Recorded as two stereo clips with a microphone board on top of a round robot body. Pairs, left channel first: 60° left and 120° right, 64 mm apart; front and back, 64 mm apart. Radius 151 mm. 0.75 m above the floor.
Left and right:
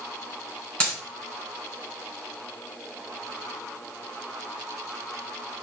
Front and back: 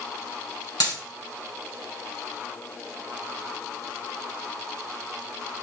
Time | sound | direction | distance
0.8 | a dropped coin | 10° right | 4.5 m